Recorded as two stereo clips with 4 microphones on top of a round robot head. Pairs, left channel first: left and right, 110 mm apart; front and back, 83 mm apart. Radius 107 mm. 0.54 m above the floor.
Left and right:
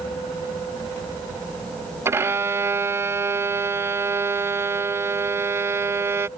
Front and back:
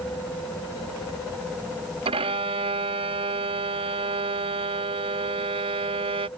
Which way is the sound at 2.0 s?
160° right.